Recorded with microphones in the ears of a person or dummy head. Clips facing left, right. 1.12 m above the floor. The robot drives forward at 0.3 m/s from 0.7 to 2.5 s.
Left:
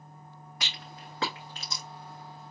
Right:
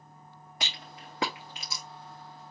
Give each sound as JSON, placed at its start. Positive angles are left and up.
{"t": 0.6, "sound": "a rattle", "side_deg": -20, "distance_m": 0.5}